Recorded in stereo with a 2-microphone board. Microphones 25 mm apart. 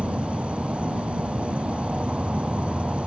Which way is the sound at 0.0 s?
65° right (ahead or behind).